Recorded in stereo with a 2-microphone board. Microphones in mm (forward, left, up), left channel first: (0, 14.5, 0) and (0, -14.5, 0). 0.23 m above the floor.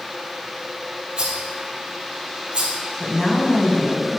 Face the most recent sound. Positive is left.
turn(degrees=20)  # may be behind; listen again after turning